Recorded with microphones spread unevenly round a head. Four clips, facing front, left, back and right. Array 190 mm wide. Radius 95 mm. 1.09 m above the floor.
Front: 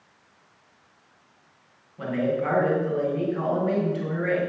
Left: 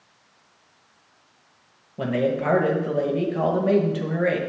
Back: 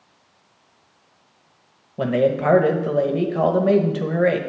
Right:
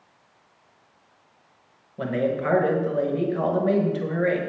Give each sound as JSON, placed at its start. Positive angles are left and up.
{"t": 2.0, "sound": "a man speaking", "azimuth_deg": 160, "distance_m": 1.2}